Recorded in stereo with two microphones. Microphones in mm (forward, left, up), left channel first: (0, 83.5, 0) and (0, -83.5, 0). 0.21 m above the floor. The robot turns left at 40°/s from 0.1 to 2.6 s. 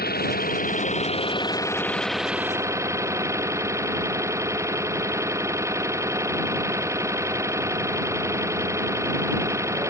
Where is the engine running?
80° left; by 9.9 s 20° right.